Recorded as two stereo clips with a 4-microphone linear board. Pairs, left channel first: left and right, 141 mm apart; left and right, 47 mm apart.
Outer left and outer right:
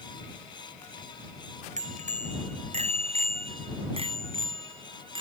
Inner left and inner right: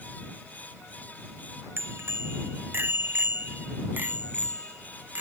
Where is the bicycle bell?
55° right (ahead or behind); by 5.2 s 35° right (ahead or behind).